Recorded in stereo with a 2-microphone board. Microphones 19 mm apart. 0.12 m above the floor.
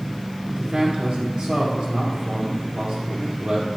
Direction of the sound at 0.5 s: 60° right (ahead or behind).